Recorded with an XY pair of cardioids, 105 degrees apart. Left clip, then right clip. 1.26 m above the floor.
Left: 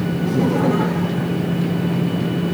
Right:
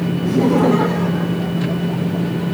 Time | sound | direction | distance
0.2 | laughter | 25° right | 1.2 m